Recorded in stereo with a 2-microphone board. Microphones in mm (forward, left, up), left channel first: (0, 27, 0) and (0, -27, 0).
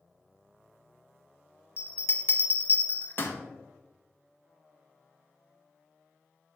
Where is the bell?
40° left (ahead or behind), 0.5 m.